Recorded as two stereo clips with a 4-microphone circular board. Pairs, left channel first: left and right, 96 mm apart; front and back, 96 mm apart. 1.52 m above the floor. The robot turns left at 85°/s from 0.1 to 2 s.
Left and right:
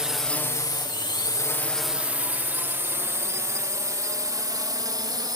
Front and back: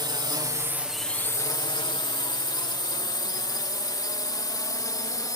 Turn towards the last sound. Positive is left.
turn(degrees=-50)